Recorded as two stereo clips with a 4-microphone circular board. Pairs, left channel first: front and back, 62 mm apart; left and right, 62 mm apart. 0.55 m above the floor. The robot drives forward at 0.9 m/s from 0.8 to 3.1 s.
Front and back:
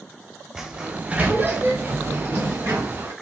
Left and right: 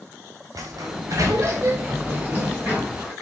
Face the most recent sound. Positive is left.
turn(degrees=-155)